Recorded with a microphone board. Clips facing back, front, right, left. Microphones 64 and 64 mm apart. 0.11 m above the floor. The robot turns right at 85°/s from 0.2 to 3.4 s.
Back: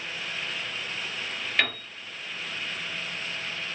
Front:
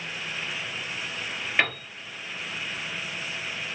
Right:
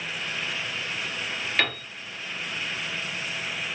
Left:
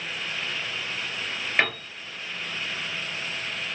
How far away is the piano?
About 1.7 m.